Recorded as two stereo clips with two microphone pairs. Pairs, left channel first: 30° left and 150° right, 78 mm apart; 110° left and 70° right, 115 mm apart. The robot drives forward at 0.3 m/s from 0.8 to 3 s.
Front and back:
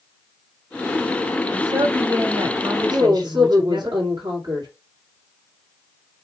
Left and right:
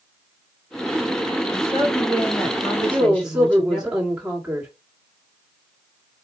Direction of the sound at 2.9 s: 150° right.